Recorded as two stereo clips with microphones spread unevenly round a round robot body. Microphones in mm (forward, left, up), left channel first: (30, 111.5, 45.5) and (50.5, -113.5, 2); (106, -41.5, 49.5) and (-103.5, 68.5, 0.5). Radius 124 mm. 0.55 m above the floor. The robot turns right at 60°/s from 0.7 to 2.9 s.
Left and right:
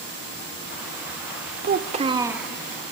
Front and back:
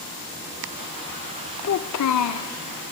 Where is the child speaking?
50° right, 0.8 m; by 2.5 s straight ahead, 0.8 m.